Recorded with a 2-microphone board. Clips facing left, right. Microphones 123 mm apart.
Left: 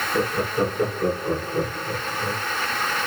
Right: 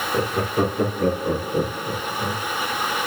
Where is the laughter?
75° right (ahead or behind), 6.5 m; by 2.4 s 70° right (ahead or behind), 5 m.